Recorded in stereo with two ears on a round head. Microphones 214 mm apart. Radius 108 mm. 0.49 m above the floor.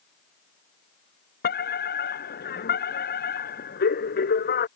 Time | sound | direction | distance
1.4 | a fire alarm | 45° left (ahead or behind) | ?